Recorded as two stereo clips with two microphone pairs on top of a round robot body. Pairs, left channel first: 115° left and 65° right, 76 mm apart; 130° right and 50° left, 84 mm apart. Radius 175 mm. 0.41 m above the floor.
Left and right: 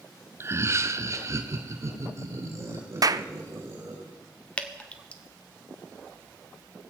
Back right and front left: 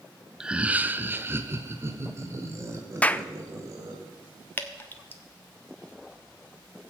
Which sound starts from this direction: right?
A clap, at 3.0 s.